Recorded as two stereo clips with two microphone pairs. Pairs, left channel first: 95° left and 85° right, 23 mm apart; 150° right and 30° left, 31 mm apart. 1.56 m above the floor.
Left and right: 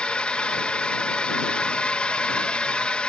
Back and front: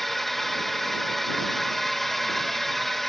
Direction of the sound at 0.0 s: 130° left.